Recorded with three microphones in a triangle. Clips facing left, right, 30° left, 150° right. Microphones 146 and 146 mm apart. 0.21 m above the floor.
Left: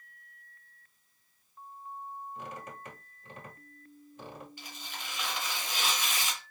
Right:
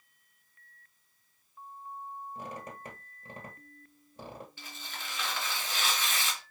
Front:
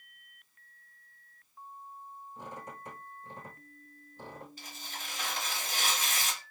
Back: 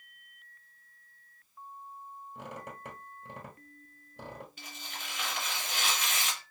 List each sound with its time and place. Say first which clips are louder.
2.4 s a squeak: right 1 dB, back 1 dB; 150° right, 1.4 m
4.6 s tearing paper: even, even; 25° left, 1.7 m